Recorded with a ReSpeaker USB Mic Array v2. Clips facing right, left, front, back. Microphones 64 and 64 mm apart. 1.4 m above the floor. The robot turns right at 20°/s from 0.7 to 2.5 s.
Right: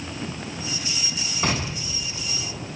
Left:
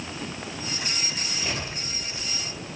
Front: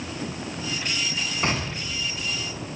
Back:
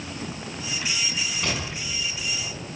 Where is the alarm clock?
No alarm clock in this recording.